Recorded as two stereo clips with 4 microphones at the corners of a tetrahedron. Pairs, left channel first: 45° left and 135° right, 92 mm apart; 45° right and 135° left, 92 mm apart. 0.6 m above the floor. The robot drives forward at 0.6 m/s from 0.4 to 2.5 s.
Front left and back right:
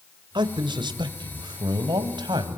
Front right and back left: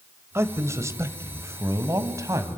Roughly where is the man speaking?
Behind.